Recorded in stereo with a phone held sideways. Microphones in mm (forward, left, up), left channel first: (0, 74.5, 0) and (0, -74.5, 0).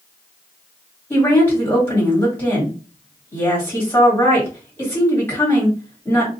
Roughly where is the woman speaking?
Centre.